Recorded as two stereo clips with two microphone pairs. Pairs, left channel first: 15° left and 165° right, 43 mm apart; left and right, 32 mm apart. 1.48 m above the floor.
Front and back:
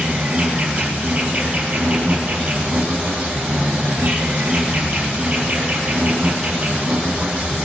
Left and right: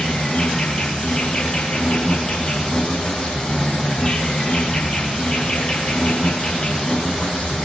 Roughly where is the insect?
Behind left.